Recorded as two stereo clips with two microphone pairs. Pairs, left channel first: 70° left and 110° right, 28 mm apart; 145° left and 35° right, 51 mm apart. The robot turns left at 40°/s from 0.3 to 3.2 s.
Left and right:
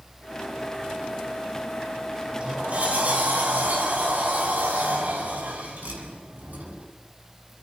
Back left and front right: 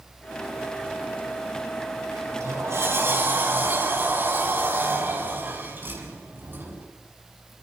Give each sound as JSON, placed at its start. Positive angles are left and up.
{"t": 2.1, "sound": "a sliding door", "azimuth_deg": -45, "distance_m": 6.5}